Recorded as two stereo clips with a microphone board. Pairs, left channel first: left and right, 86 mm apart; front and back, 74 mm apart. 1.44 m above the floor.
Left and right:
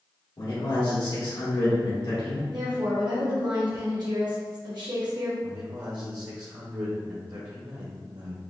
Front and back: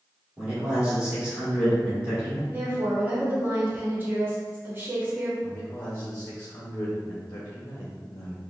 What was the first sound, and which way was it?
A man speaking, 105° left.